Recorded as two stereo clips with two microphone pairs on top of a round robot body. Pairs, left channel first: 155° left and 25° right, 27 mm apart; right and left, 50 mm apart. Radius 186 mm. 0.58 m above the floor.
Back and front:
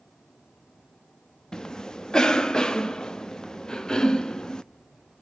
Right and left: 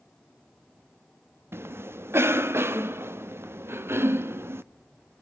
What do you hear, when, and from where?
1.5 s a cough: 105° left, 1.2 m